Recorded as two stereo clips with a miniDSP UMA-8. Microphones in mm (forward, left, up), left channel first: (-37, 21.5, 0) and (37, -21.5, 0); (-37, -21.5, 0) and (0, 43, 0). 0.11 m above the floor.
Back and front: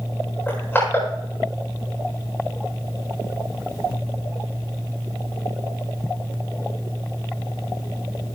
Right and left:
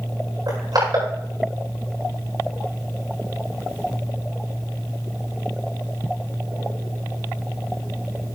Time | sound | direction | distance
0.5 | crushing | 85° left | 8 m